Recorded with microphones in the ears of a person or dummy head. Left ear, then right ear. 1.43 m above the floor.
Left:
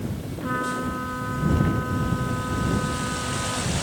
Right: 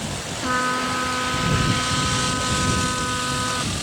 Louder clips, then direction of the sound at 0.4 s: Right 5 dB; 85° right.